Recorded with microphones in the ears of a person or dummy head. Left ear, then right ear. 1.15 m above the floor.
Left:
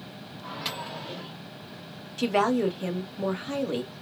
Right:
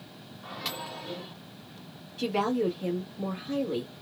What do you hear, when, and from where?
0.4 s a microwave: 10° left (ahead or behind), 1.1 m
2.2 s a woman speaking: 45° left (ahead or behind), 1.2 m